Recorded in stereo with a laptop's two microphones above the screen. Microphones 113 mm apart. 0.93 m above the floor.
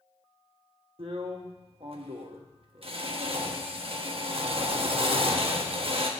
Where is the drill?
55° right (ahead or behind), 1.2 m.